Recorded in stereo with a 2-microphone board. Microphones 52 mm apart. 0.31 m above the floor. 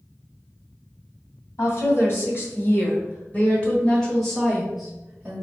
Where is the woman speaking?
50° left (ahead or behind), 1.9 m; by 5.5 s 20° right (ahead or behind), 1.2 m.